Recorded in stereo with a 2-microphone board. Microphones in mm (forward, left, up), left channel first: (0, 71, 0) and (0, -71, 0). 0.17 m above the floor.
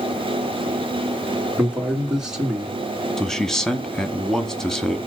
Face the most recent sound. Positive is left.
turn(degrees=5)  # may be behind; listen again after turning